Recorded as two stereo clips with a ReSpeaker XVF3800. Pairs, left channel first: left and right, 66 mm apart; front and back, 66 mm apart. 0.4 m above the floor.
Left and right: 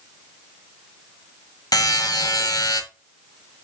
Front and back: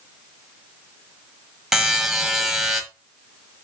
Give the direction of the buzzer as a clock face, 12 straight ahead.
9 o'clock.